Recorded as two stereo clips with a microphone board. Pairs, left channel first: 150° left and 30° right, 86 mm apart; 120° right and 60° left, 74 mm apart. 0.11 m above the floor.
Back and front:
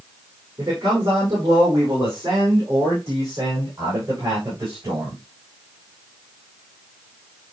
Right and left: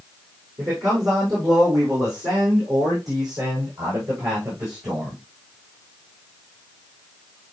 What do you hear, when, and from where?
0.6 s a man speaking: 20° left, 6.5 m